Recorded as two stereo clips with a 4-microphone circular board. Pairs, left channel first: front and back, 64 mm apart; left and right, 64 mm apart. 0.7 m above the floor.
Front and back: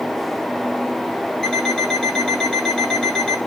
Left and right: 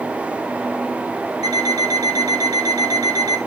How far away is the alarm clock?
About 3 m.